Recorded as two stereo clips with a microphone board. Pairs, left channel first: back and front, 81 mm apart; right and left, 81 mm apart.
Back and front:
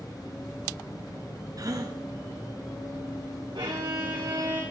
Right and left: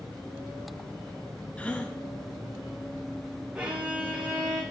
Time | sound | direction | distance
1.6 | a gasp | 20° right | 1.3 m
3.5 | a violin | 20° left | 3 m